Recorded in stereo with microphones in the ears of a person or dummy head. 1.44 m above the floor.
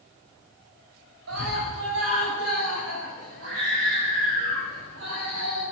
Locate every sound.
1.3 s a scream: 85° right, 7 m; by 5.6 s 65° right (ahead or behind), 11 m